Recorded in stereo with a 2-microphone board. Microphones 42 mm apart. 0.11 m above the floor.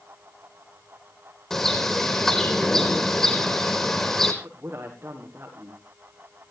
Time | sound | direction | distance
1.5 | a bird | 10° left (ahead or behind) | 3 m
4.4 | a man speaking | 55° right (ahead or behind) | 7.5 m